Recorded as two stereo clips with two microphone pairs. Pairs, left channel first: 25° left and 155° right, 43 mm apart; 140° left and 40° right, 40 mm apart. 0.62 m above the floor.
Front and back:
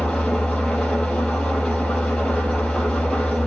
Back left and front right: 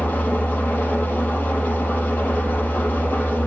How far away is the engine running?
About 5 m.